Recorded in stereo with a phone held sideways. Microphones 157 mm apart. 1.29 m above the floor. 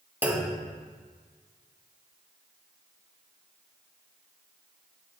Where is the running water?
I don't hear running water.